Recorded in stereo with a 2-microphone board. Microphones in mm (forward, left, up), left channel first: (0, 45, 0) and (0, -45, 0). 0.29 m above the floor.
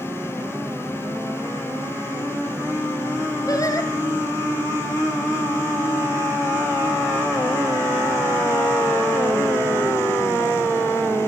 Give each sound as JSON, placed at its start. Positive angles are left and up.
{"t": 3.5, "sound": "singing", "side_deg": 40, "distance_m": 2.0}